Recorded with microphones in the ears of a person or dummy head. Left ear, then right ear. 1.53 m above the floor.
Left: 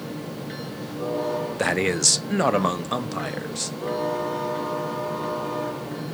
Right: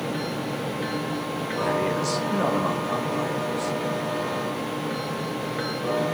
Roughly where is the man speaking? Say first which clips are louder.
Left 2 dB; left.